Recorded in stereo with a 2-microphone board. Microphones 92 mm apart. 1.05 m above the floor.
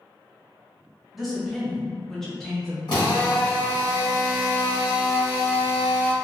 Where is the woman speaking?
Centre (ahead or behind), 0.9 m; by 2.8 s 5° left (ahead or behind), 0.7 m.